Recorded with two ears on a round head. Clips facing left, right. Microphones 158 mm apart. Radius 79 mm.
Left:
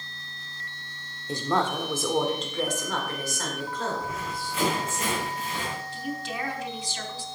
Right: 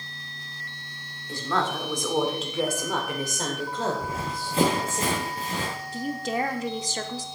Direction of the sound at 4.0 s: 25° right (ahead or behind).